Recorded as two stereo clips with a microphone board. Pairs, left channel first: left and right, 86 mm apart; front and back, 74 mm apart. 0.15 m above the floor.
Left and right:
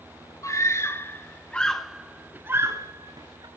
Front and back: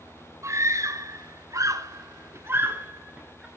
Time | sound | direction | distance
0.4 | a scream | 135° left | 2.5 m